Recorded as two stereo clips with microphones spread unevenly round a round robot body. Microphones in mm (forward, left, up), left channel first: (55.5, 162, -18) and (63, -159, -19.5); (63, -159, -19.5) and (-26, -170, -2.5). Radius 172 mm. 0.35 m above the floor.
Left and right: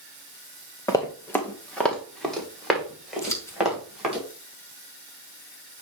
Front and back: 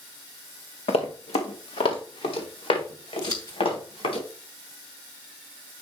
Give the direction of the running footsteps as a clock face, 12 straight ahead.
12 o'clock.